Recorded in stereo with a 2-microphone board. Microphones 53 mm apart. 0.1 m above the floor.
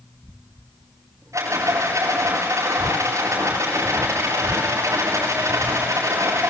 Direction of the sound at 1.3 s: 80° right.